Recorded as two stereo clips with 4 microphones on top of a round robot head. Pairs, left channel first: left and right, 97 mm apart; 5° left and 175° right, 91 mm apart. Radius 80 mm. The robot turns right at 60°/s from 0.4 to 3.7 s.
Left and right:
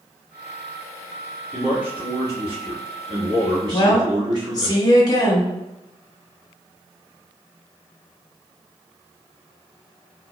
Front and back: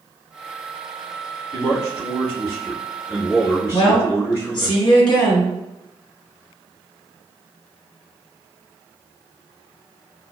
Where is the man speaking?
170° left, 1.3 m; by 4.7 s 55° right, 1.3 m.